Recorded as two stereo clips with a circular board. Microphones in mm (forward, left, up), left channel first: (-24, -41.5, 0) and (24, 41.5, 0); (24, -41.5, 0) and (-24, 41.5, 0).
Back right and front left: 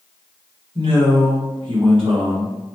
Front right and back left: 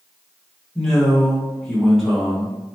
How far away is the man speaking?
About 1.8 m.